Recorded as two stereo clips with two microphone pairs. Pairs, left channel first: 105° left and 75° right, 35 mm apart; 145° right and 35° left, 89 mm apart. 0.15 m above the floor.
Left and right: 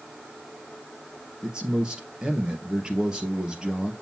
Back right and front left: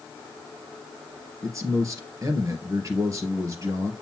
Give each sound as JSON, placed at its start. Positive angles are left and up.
{"t": 1.4, "sound": "a man speaking", "azimuth_deg": -10, "distance_m": 2.5}